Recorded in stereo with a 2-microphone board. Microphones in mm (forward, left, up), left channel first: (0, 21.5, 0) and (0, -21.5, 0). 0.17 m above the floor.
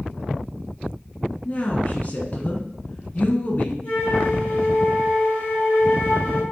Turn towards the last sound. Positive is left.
turn(degrees=40)  # may be behind; listen again after turning